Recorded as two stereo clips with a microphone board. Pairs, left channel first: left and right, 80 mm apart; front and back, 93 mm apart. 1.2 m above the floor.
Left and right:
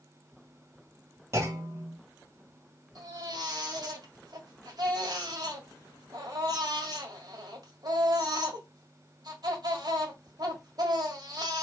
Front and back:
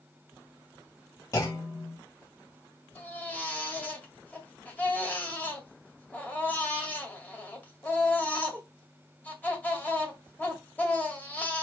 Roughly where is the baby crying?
Right.